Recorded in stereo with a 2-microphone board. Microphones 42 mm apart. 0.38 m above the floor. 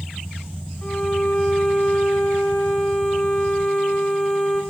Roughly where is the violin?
Left.